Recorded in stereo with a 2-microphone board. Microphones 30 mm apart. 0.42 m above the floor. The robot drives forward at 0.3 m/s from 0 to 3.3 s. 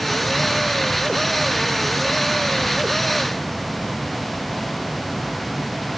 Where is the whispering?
I don't hear whispering.